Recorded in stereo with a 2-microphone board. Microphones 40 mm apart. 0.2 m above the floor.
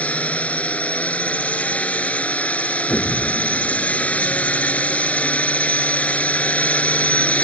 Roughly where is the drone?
Left.